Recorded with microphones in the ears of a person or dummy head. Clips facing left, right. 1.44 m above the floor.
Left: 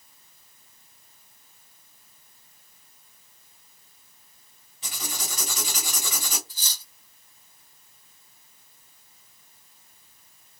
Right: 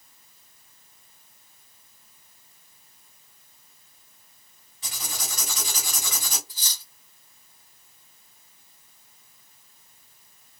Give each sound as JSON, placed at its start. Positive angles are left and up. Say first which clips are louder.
{"t": 4.8, "sound": "writing", "louder": "left 2 dB", "side_deg": 15, "distance_m": 1.8}
{"t": 6.5, "sound": "cutlery clinking", "louder": "even", "side_deg": -15, "distance_m": 1.0}